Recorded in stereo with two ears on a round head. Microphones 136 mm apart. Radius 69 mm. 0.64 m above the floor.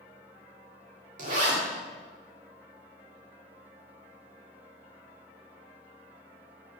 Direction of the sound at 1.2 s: 50° right (ahead or behind).